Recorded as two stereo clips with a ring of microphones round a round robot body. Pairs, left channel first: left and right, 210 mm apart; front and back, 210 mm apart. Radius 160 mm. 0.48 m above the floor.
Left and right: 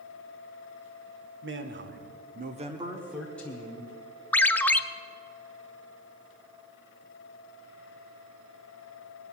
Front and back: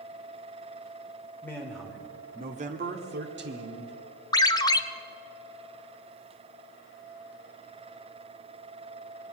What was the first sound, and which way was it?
A man speaking, 80° right.